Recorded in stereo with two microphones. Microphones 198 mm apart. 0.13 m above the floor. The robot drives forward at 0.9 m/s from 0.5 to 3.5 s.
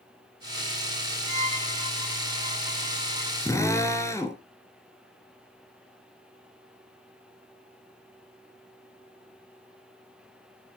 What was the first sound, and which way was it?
A violin, 40° right (ahead or behind).